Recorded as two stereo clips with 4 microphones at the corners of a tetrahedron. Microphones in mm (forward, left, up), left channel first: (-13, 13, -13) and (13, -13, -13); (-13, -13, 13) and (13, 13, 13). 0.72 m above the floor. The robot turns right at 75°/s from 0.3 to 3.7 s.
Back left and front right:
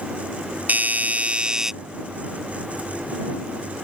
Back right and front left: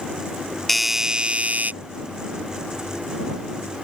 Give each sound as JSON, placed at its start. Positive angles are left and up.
{"t": 0.7, "sound": "a doorbell", "azimuth_deg": -50}